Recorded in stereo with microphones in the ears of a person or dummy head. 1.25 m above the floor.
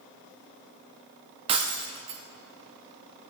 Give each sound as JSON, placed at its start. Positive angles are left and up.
{"t": 1.5, "sound": "breaking glass", "side_deg": -30, "distance_m": 0.7}